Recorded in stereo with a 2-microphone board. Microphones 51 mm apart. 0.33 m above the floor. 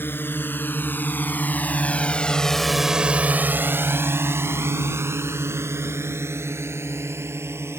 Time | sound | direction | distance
0.0 | a drone | 45° left (ahead or behind) | ?